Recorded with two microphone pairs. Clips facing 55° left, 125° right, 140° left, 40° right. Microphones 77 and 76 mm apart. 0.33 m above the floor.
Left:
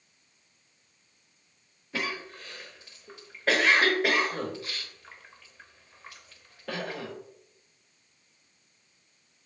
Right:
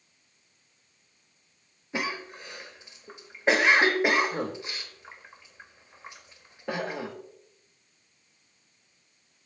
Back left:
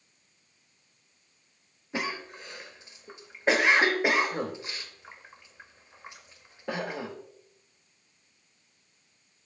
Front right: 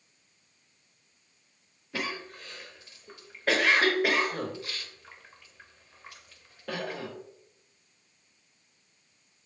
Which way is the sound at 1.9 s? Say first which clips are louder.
Right 2 dB, back left 2 dB; 170° right.